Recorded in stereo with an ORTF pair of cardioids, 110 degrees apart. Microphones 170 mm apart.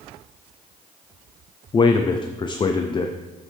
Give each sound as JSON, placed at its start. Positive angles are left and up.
{"t": 1.7, "sound": "a man speaking", "azimuth_deg": 25, "distance_m": 0.6}